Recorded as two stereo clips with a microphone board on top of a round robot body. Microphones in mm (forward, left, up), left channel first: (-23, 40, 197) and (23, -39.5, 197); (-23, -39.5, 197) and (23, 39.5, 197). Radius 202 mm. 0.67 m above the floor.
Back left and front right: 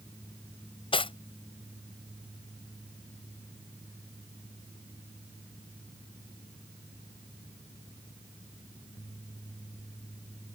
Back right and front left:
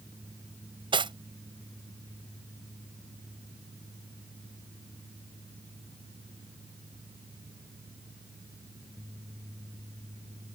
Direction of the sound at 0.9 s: 95° left.